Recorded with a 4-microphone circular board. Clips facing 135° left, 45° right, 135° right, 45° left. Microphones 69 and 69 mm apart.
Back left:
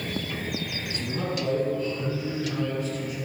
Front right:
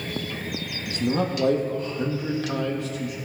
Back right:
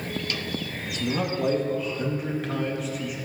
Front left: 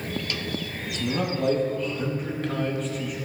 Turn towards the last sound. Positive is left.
turn(degrees=-50)